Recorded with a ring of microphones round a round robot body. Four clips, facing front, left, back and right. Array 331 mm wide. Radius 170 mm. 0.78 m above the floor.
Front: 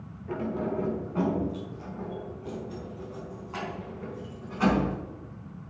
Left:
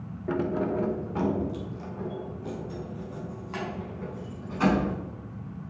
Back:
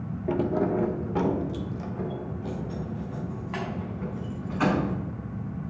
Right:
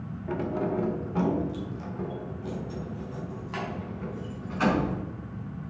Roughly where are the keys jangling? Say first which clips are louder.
Left 2 dB, back 6 dB; behind left.